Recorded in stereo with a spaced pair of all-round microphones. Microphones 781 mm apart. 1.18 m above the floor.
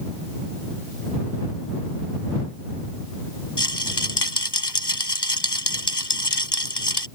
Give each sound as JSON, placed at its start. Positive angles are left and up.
{"t": 3.6, "sound": "a rattle", "side_deg": 30}